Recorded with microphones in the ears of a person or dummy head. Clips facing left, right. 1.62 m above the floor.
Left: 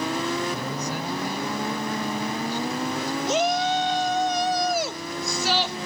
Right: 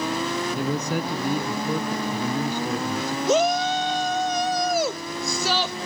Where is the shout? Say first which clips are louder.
Right 3 dB; 80° right.